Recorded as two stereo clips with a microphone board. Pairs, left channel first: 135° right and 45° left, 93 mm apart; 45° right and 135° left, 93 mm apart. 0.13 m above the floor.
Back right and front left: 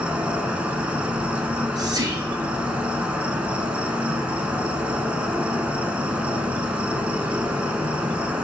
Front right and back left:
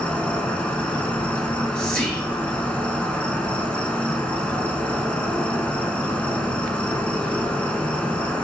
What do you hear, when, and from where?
0.0 s an insect: straight ahead, 0.7 m
1.4 s whispering: 35° left, 2.0 m